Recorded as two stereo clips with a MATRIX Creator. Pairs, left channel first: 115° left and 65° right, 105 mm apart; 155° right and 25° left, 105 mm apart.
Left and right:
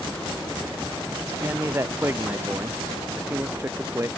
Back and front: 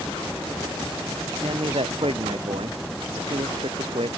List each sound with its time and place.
1.4 s a man speaking: 5° right